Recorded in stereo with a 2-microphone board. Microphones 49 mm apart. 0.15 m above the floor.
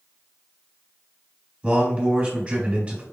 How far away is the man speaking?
About 1.6 m.